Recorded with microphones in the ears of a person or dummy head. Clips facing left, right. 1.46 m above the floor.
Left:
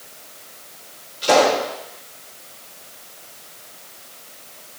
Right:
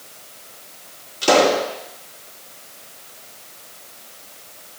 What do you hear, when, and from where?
1.2 s a pop: 65° right (ahead or behind), 3 m